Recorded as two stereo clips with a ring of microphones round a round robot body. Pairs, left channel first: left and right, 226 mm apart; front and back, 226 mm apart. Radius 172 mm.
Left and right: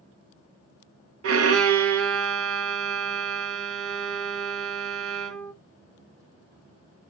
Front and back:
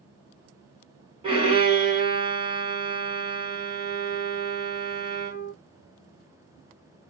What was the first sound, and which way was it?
A violin, 110° right.